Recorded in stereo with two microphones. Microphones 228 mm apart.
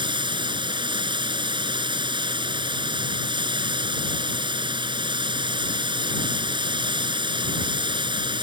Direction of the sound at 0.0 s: 20° right (ahead or behind).